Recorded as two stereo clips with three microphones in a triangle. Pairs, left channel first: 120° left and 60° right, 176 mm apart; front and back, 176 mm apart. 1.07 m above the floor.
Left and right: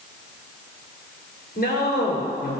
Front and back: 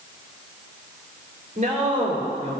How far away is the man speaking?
About 4 m.